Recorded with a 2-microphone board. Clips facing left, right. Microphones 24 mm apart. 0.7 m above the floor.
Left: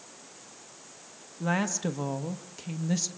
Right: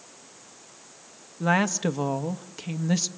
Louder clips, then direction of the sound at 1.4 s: Right 5 dB; 25° right (ahead or behind).